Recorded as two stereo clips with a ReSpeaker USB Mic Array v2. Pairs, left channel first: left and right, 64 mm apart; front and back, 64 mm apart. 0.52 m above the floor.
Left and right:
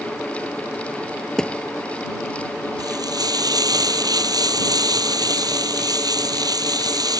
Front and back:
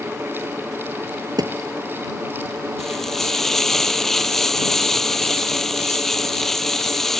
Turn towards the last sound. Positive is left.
turn(degrees=-85)